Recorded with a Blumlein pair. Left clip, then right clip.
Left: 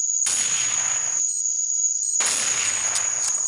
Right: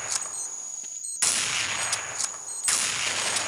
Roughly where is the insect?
Ahead left.